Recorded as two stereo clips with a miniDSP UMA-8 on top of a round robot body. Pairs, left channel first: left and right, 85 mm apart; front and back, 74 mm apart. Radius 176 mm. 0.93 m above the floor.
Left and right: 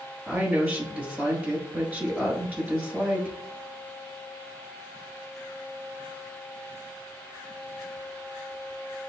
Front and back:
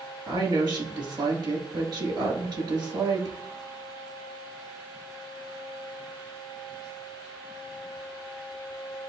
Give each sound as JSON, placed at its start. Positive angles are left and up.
{"t": 0.3, "sound": "a woman speaking", "azimuth_deg": -165, "distance_m": 1.7}